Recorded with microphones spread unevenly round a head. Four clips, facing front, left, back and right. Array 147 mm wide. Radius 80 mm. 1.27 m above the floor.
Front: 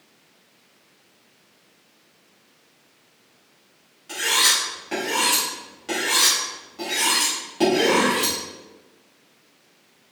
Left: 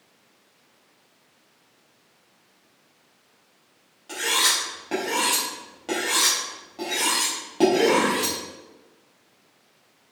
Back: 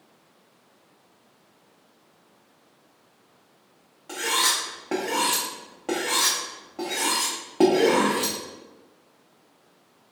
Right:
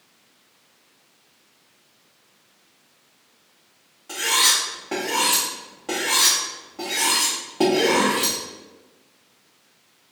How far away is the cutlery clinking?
About 1.0 m.